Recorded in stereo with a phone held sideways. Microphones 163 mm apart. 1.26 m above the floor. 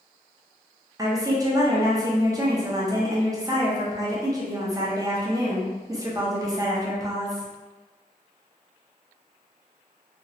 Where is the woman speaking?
20° right (ahead or behind), 0.7 m.